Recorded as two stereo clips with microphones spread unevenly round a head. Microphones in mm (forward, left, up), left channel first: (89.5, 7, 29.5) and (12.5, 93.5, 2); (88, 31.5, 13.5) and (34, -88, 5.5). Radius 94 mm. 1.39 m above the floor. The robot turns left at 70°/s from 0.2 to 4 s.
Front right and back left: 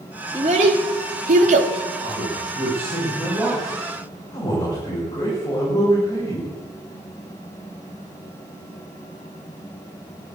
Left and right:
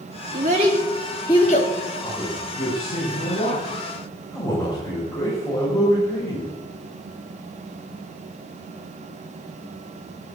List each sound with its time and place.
0.3 s a child speaking: 160° right, 1.9 m; by 1.7 s 105° left, 1.9 m
2.0 s a man speaking: 145° left, 5.5 m; by 6.5 s 5° left, 5.5 m